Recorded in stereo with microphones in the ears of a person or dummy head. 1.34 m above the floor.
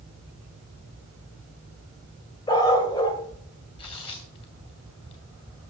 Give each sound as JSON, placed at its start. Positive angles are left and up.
{"t": 2.5, "sound": "a dog barking", "side_deg": 25, "distance_m": 2.0}
{"t": 3.8, "sound": "tearing paper", "side_deg": 25, "distance_m": 1.4}